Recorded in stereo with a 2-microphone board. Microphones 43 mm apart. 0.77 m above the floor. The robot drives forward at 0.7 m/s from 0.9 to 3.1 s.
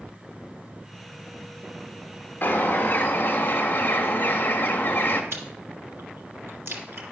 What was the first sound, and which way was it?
A bird, 45° left (ahead or behind).